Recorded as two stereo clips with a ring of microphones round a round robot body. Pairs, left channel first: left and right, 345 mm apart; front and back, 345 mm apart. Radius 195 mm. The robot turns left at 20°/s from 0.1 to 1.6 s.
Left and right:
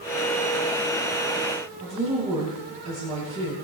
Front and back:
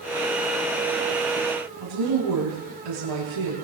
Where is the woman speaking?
165° right, 8.5 m.